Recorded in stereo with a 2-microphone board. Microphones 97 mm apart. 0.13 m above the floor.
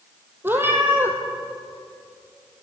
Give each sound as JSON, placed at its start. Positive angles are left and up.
{"t": 0.4, "sound": "a cat meowing", "side_deg": -20, "distance_m": 1.1}